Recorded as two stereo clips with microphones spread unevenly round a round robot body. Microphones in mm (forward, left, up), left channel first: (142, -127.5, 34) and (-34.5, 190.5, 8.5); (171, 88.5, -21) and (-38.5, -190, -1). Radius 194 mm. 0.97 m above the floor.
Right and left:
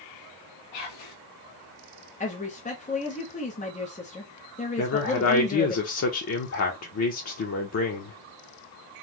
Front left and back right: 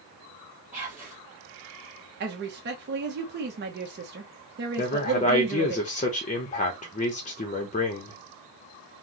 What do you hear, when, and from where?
0.7 s whispering: 40° right, 1.2 m
2.2 s a woman speaking: 115° right, 0.7 m
4.8 s a man speaking: 10° right, 0.7 m